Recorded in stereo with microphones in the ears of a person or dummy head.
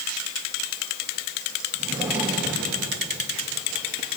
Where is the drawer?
15° right (ahead or behind), 6.5 m.